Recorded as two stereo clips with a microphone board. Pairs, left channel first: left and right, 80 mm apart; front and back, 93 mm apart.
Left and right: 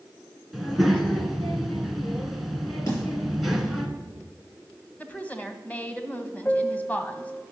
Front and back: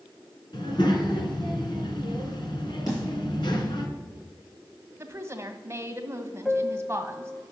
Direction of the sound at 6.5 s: 80° left.